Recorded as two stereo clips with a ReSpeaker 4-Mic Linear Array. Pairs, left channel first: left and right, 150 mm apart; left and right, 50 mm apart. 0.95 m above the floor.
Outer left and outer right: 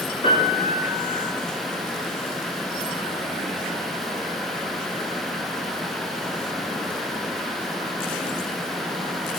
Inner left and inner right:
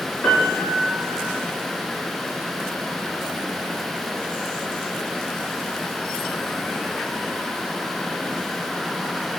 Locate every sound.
0.2 s a piano: 35° left (ahead or behind), 2 m